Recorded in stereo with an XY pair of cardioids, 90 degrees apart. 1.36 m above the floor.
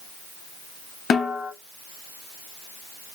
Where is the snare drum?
50° left, 0.7 m.